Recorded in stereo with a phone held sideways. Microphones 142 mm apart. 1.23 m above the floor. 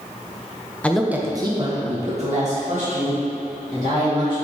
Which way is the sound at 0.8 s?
10° left (ahead or behind).